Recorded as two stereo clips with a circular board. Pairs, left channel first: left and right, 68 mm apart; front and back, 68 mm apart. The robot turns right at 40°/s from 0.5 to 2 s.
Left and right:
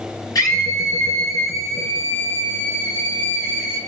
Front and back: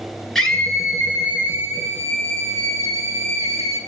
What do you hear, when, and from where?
0.3 s a scream: 85° left, 2.5 m; by 3.8 s 145° left, 2.5 m